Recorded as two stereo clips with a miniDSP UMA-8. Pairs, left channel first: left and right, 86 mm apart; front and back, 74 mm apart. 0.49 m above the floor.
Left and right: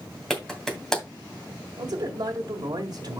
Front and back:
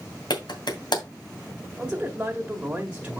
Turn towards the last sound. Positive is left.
turn(degrees=-105)